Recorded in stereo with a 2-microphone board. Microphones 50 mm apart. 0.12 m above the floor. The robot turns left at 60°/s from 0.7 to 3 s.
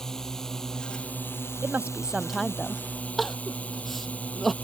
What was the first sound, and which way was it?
A drone, 170° left.